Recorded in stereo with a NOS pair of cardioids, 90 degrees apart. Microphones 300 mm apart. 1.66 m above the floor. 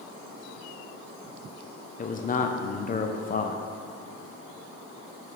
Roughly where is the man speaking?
Ahead left.